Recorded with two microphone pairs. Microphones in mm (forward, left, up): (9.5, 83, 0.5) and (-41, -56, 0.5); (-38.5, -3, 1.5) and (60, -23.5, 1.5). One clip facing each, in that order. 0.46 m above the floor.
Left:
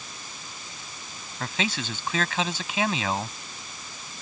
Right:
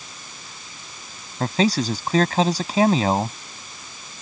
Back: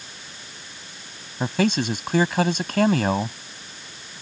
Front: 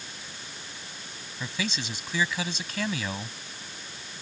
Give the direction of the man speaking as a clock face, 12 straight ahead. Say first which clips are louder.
Right 10 dB, back 12 dB; 5 o'clock.